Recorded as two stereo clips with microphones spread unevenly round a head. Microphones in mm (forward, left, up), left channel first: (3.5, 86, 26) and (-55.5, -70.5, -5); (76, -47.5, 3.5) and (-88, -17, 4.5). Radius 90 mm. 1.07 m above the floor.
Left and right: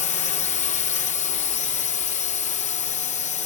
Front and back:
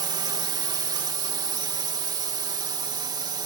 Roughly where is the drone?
Left.